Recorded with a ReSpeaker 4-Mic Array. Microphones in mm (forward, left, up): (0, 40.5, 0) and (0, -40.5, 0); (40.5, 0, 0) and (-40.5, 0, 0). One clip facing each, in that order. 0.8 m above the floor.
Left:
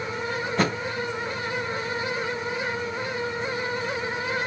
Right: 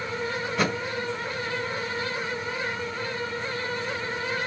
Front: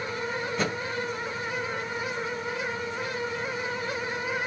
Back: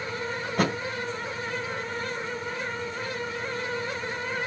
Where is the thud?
145° left, 2.5 m.